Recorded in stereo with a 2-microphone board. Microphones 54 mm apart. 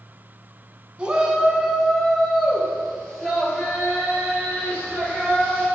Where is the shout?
20° right (ahead or behind), 1.4 m; by 5.7 s 15° left (ahead or behind), 6.5 m.